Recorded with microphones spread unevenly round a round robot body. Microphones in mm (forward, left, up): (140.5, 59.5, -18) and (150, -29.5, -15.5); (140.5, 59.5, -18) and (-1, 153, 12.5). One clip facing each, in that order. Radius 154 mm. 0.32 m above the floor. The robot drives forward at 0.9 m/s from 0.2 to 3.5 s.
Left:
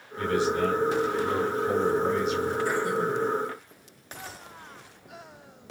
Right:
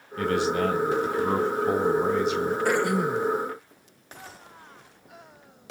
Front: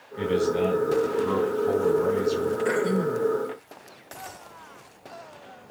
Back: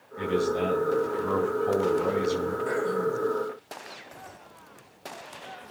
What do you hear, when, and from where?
0.2 s a man speaking: 100° right, 2.5 m; by 2.5 s 135° right, 3.5 m
2.6 s throat clearing: 70° right, 1.9 m; by 3.3 s 90° right, 1.7 m